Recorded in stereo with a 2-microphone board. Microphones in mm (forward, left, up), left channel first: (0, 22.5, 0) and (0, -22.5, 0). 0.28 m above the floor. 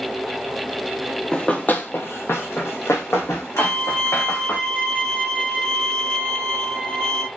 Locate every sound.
1.3 s running footsteps: 15° left (ahead or behind), 0.5 m; by 4.6 s 70° left (ahead or behind), 1.7 m
3.6 s a violin: 20° left (ahead or behind), 1.1 m